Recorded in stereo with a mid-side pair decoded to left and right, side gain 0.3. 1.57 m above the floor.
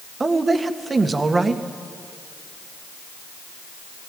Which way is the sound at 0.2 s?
40° right.